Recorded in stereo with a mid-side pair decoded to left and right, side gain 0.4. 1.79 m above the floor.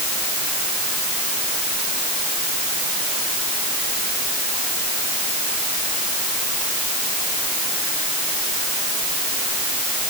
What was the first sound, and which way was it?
Only background noise.